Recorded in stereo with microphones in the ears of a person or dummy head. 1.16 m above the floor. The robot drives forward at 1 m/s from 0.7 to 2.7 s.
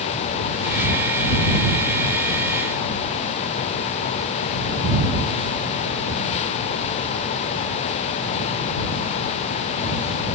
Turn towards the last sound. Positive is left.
No sound to turn to.